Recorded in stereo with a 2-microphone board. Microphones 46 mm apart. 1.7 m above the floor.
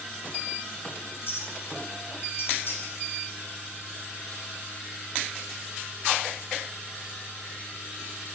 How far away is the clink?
About 7 m.